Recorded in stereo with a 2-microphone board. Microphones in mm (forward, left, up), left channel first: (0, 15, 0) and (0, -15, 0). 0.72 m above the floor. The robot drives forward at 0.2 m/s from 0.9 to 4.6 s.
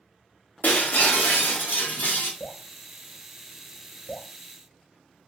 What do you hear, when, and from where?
0.6 s breaking glass: 80° left, 1.2 m; by 2.3 s 75° left (ahead or behind), 1.3 m
2.4 s dripping: 65° left (ahead or behind), 1.2 m; by 4.3 s 85° left, 1.1 m